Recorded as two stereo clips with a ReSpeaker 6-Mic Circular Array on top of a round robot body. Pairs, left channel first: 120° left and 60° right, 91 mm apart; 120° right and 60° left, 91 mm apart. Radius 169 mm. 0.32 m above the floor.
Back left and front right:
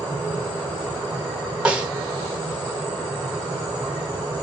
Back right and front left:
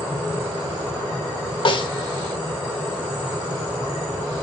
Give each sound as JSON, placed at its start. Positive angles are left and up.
{"t": 1.6, "sound": "a snare drum", "azimuth_deg": -140, "distance_m": 1.1}